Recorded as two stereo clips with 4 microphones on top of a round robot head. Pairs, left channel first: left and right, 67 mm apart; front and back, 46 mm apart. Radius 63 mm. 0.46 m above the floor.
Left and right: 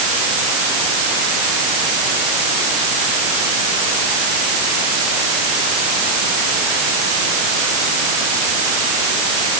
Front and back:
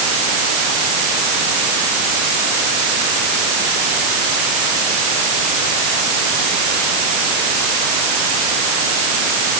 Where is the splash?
No splash in this recording.